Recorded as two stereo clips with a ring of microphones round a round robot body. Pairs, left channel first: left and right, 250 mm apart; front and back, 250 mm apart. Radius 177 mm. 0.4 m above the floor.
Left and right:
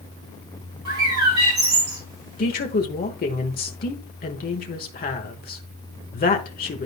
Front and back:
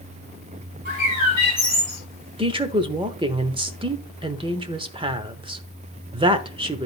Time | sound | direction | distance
0.8 | a bird | 120° right | 3 m
2.4 | a woman speaking | 120° left | 1.0 m